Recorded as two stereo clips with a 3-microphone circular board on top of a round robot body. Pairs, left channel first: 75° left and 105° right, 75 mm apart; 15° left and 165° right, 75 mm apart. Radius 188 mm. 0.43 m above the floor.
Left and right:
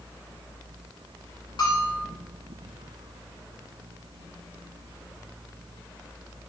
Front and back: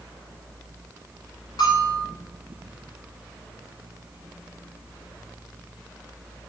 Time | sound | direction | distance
1.6 | a bell | 50° left | 1.7 m